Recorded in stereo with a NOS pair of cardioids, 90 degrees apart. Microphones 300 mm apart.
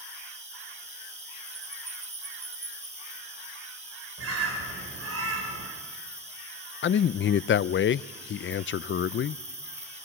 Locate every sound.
0.0 s an insect: 20° right, 7.5 m
4.2 s a bird: 50° right, 5.5 m
6.8 s a man speaking: 40° left, 0.5 m